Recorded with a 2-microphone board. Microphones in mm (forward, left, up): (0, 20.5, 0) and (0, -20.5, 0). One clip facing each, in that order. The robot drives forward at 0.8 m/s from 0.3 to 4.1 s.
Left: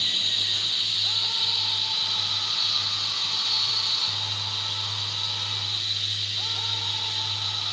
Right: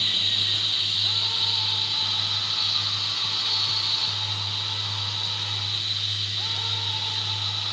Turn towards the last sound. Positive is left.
turn(degrees=-15)  # may be behind; listen again after turning